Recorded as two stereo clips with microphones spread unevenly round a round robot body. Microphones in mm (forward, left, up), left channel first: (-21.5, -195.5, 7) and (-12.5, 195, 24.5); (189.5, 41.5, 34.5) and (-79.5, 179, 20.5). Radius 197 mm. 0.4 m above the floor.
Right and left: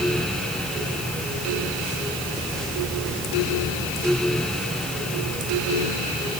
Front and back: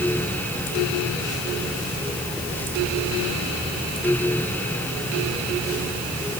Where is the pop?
No pop in this recording.